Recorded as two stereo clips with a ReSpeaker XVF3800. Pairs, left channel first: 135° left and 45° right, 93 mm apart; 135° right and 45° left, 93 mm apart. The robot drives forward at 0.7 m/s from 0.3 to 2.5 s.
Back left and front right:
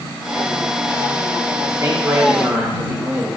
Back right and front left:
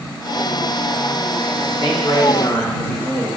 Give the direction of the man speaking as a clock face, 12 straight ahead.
3 o'clock.